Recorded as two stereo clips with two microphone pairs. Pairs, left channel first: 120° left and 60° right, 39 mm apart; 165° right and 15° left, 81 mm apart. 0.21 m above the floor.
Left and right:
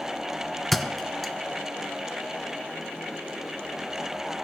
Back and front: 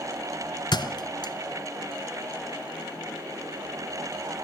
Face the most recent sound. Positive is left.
turn(degrees=-155)